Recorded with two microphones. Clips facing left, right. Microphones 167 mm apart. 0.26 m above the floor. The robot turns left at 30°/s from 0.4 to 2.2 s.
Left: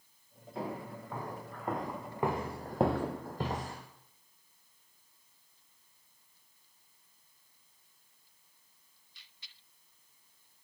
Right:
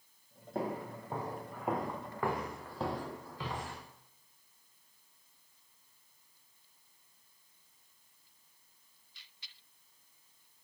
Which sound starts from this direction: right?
Footsteps, at 0.6 s.